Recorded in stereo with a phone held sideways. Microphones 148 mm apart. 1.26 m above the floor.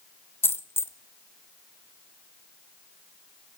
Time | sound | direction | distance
0.4 | a dropped coin | 15° left (ahead or behind) | 0.6 m